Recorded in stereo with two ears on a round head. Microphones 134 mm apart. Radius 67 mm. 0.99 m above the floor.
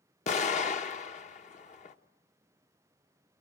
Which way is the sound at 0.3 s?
50° left (ahead or behind).